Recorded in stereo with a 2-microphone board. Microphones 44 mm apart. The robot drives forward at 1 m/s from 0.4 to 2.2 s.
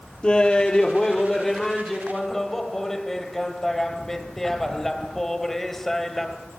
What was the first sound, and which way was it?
Laughter, 20° left (ahead or behind).